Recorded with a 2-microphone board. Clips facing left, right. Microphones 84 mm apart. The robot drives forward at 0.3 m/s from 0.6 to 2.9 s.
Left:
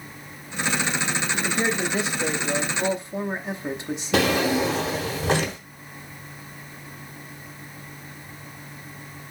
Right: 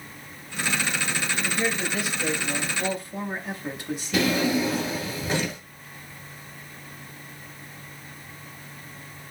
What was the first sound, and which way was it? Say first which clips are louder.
A man speaking: left 3 dB; 30° left (ahead or behind).